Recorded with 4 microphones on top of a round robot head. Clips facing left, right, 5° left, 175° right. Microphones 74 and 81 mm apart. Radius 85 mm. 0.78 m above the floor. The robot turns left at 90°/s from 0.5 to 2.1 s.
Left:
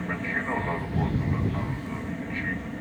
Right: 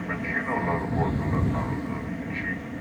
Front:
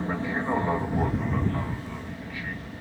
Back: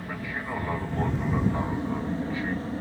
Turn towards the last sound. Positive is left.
turn(degrees=-175)